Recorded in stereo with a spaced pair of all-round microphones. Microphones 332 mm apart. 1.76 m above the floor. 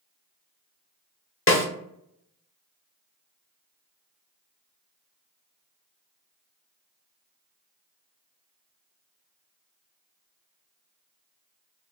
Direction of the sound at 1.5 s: 40° left (ahead or behind).